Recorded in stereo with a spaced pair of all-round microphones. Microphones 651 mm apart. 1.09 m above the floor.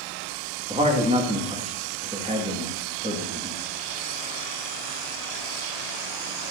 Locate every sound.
0.7 s a man speaking: 10° right (ahead or behind), 1.6 m